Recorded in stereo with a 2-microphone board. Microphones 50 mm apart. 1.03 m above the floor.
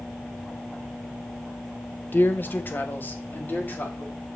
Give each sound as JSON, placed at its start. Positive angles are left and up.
{"t": 2.1, "sound": "a man speaking", "side_deg": 45, "distance_m": 0.8}